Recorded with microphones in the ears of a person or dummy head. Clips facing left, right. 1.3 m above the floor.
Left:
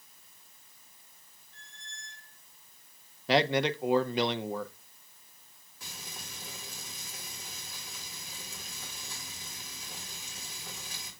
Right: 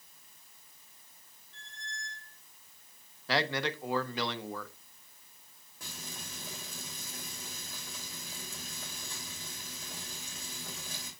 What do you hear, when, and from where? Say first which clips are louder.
1.5 s a squeak: right 7 dB; 70° right (ahead or behind), 1.8 m
3.3 s a man speaking: left 6 dB; 20° left (ahead or behind), 0.5 m
5.8 s frying: right 2 dB; 40° right (ahead or behind), 3 m